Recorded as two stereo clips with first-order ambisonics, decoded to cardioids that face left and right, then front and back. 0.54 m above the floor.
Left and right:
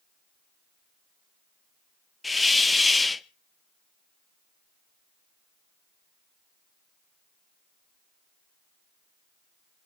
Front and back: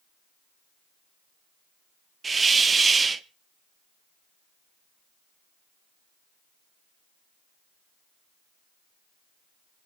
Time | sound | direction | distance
2.2 | a hiss | 145° left | 0.6 m